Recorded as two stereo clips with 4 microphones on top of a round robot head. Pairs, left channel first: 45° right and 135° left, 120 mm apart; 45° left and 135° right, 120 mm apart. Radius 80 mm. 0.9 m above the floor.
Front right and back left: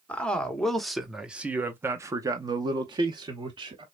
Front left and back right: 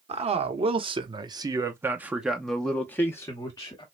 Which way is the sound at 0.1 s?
125° right.